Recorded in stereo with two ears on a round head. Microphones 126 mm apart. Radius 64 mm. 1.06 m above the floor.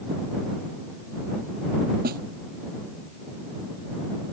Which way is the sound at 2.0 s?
65° right (ahead or behind).